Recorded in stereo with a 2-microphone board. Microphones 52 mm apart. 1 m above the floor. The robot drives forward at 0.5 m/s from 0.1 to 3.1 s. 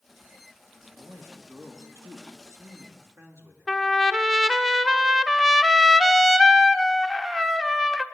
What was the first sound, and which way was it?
A man speaking, 60° right (ahead or behind).